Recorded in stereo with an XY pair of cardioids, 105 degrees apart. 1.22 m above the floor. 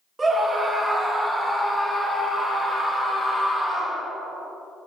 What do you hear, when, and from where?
0.2 s a scream: 25° right, 3 m; by 4.0 s 15° left, 6.5 m